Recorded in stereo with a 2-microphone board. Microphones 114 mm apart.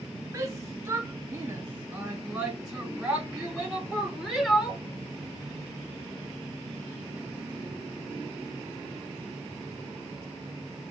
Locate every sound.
0.3 s a shout: 25° right (ahead or behind), 1.7 m; by 4.8 s 10° left (ahead or behind), 1.9 m